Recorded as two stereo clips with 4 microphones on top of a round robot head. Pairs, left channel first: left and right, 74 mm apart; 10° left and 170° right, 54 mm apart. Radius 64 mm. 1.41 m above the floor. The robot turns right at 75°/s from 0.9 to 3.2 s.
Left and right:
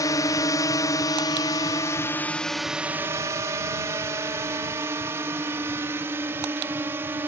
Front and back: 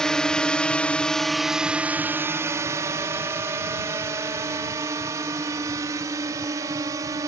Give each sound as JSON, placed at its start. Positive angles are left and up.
{"t": 0.0, "sound": "a drone", "azimuth_deg": 85}